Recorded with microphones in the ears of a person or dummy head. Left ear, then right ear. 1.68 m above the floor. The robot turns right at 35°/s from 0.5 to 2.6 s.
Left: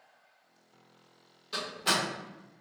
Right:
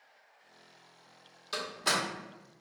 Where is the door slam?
40° right (ahead or behind), 1.3 m; by 2.0 s 30° right (ahead or behind), 1.3 m.